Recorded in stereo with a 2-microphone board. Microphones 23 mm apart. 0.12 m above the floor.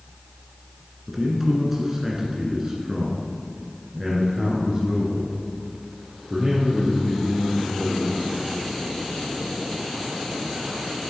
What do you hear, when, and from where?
1.1 s a man speaking: 10° right (ahead or behind), 1.8 m; by 8.3 s 25° right (ahead or behind), 3.5 m